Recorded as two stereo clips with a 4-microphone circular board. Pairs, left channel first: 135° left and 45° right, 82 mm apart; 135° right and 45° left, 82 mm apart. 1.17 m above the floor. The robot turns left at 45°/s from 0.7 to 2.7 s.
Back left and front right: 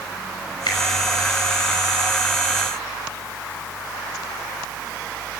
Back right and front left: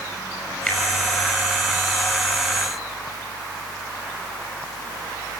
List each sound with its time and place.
0.7 s a finger snap: 150° left, 6 m; by 0.8 s 145° left, 6 m